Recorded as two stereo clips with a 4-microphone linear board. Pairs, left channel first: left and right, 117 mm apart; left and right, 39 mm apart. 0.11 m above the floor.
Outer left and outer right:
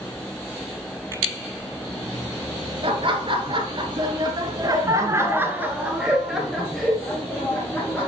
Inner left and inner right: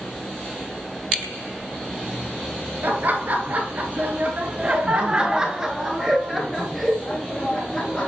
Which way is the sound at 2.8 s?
50° right (ahead or behind).